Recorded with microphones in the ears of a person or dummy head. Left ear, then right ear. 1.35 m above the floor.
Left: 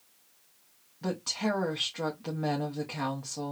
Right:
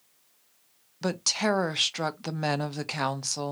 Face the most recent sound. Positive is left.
turn(degrees=-70)  # may be behind; listen again after turning